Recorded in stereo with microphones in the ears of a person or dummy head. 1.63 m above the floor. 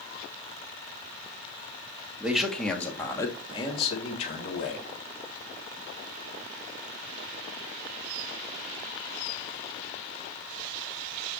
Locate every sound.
2.2 s a man speaking: 5° right (ahead or behind), 1.3 m; by 4.8 s 50° left (ahead or behind), 1.7 m